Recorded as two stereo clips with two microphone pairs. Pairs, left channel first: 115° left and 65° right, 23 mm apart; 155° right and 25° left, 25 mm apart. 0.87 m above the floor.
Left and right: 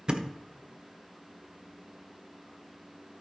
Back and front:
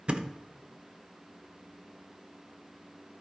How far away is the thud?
About 0.8 m.